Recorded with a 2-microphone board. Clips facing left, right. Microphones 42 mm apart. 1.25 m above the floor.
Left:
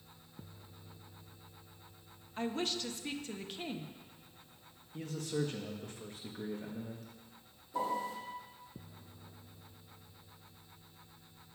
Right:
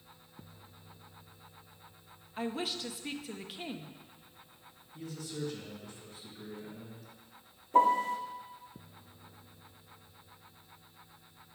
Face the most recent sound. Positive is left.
turn(degrees=-55)  # may be behind; listen again after turning